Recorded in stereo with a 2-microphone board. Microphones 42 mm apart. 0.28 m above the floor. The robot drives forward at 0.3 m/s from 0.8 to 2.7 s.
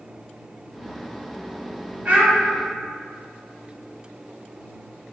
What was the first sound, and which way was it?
A child speaking, 35° right (ahead or behind).